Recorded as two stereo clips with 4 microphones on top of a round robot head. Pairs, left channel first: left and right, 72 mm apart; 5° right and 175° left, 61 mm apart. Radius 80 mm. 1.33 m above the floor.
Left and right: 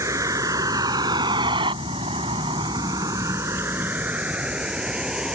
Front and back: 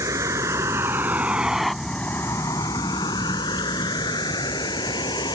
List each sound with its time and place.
0.0 s a vehicle: 135° right; by 5.3 s 5° right